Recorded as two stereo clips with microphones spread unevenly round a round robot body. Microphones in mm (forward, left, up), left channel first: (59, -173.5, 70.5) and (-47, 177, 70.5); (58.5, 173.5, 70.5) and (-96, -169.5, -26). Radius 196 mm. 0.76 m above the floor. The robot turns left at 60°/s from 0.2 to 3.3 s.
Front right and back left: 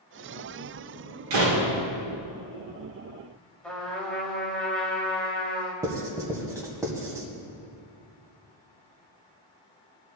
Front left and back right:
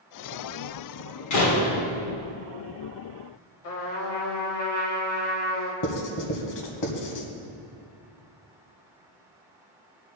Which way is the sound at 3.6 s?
15° left.